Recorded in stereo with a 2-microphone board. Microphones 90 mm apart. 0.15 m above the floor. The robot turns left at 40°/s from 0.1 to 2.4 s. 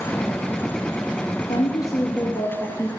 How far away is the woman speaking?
About 2.5 m.